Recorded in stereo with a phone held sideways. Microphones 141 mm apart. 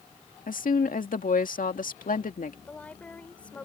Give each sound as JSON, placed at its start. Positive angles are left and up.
{"t": 0.5, "sound": "a woman speaking", "side_deg": 75}
{"t": 2.7, "sound": "a woman speaking", "side_deg": 10}